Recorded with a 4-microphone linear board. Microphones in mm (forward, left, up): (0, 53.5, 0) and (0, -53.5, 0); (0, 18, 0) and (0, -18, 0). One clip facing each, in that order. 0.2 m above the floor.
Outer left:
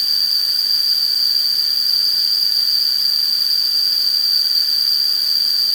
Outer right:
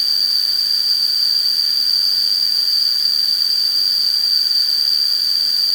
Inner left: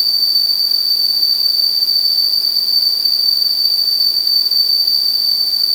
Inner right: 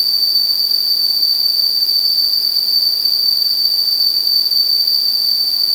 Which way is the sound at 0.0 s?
10° right (ahead or behind).